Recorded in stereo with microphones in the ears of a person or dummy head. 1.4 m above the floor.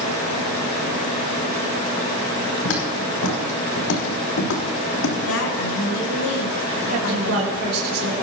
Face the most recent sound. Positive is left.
turn(degrees=-60)  # may be behind; listen again after turning